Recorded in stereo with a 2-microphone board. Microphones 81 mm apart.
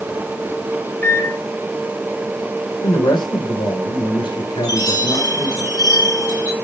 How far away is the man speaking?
About 4.5 m.